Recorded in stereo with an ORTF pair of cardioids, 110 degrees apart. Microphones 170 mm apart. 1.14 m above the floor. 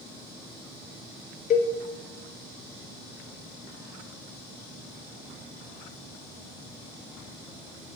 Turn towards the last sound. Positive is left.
turn(degrees=50)